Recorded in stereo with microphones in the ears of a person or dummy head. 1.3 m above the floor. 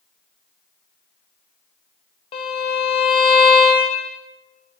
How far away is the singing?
No singing in this recording.